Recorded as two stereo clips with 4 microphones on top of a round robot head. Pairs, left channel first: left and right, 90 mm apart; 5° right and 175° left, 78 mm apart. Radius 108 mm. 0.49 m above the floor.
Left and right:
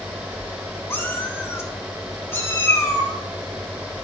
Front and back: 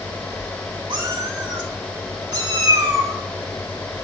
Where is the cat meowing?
155° left, 3 m; by 3.1 s 150° left, 4.5 m.